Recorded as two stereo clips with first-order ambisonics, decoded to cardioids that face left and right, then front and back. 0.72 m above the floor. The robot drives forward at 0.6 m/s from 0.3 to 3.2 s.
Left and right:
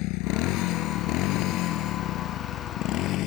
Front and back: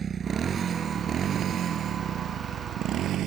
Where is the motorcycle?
115° left; by 3.3 s 130° left.